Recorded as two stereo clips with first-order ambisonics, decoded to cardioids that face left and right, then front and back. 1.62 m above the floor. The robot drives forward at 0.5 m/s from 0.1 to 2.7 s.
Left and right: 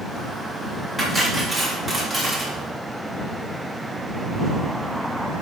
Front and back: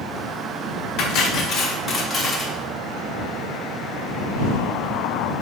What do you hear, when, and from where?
1.0 s cutlery clinking: straight ahead, 1.0 m; by 2.5 s 165° right, 0.7 m